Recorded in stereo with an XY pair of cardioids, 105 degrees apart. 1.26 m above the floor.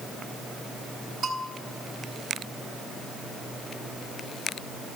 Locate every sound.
1.2 s a bell: 45° right, 5 m